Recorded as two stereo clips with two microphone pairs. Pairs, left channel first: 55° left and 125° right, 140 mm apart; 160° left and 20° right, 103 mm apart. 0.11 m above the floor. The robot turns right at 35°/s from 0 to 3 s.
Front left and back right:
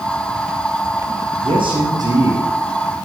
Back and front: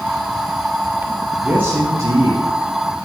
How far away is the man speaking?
About 2.5 m.